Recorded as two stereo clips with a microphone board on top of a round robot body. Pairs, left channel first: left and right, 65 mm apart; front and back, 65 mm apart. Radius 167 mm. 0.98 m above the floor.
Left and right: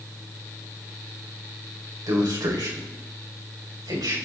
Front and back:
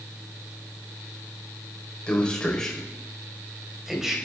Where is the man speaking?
70° right, 4.5 m; by 4.2 s 95° right, 5.5 m.